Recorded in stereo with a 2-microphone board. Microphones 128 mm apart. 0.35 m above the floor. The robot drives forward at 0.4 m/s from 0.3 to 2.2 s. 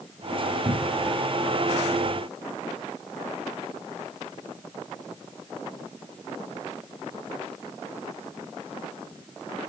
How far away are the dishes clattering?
No dishes clattering in this recording.